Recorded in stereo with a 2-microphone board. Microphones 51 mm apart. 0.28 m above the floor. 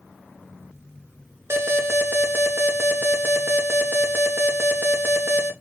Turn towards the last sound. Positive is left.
turn(degrees=-50)  # may be behind; listen again after turning